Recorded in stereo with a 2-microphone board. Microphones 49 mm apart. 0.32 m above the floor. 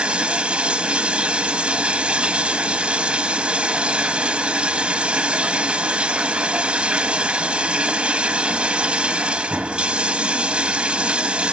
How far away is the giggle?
I don't hear a giggle.